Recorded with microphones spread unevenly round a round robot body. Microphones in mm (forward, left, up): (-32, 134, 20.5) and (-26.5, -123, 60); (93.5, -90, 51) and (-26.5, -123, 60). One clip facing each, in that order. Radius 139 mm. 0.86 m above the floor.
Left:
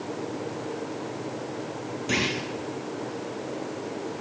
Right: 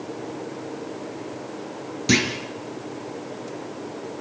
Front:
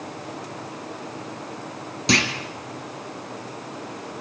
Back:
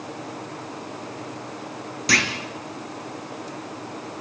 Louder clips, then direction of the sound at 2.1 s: Right 7 dB, front 3 dB; 50° right.